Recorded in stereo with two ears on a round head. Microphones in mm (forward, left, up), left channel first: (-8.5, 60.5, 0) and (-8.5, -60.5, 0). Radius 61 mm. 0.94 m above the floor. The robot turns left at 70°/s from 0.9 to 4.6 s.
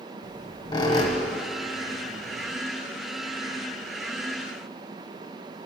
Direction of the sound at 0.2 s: 35° left (ahead or behind).